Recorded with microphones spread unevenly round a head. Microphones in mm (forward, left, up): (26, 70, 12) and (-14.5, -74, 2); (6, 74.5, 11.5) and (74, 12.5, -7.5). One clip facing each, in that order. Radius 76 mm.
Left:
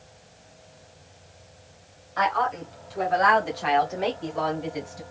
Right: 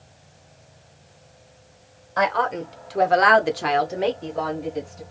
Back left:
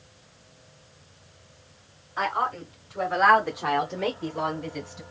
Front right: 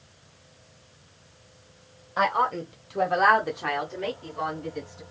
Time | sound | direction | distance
2.2 | a woman speaking | 75° right | 1.8 m